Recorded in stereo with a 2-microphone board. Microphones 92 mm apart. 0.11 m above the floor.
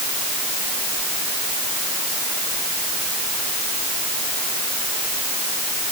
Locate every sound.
Only background noise.